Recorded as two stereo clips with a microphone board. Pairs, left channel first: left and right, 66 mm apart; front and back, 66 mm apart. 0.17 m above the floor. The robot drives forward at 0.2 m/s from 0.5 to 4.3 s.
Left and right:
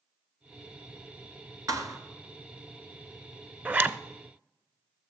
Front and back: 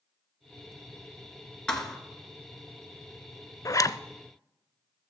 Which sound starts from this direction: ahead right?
A zipper, at 3.6 s.